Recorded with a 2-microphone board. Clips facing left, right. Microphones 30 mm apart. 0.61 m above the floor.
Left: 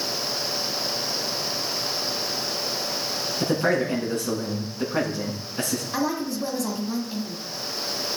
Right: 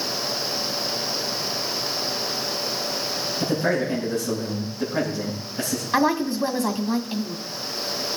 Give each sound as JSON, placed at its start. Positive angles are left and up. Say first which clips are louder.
{"t": 3.4, "sound": "a man speaking", "louder": "left 1 dB", "side_deg": 65, "distance_m": 8.0}
{"t": 5.9, "sound": "a woman speaking", "louder": "right 7 dB", "side_deg": -35, "distance_m": 1.6}